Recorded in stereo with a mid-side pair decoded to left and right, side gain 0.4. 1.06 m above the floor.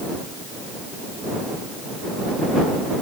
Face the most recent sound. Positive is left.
No sound to turn to.